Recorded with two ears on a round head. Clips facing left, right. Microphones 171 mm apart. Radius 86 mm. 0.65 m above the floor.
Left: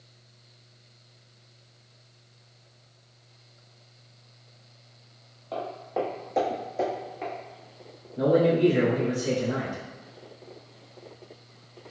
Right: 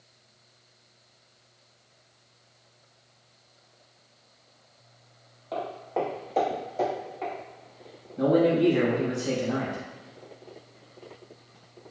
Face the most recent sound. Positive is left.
turn(degrees=60)  # may be behind; listen again after turning